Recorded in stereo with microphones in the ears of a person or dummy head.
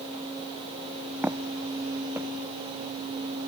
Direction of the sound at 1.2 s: 5° right (ahead or behind).